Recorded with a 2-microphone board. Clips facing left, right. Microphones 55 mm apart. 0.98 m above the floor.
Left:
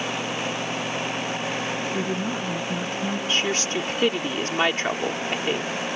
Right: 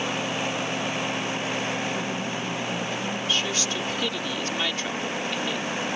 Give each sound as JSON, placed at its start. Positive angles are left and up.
{"t": 1.9, "sound": "a woman speaking", "side_deg": 45}
{"t": 3.3, "sound": "a woman speaking", "side_deg": 45}